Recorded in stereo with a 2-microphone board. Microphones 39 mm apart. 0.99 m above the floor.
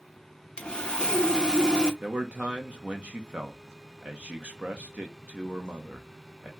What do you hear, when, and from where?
0.6 s sawing: 20° left (ahead or behind), 0.7 m
2.0 s a man speaking: 35° right (ahead or behind), 0.8 m